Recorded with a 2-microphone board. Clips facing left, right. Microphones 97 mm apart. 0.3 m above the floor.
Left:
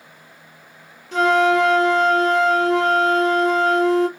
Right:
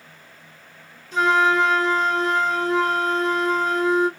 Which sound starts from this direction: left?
A flute, at 1.1 s.